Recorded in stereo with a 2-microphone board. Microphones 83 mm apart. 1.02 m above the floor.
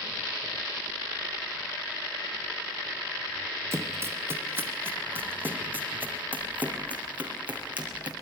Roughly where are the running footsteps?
Right.